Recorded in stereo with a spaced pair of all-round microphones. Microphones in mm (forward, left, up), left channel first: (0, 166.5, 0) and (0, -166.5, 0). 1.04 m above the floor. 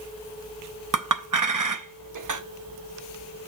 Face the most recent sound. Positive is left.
turn(degrees=-65)  # may be behind; listen again after turning